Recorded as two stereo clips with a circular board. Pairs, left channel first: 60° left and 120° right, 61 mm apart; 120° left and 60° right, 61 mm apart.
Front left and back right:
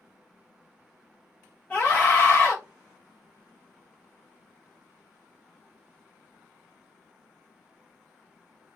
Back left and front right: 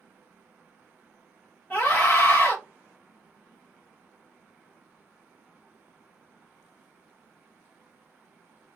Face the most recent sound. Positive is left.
turn(degrees=90)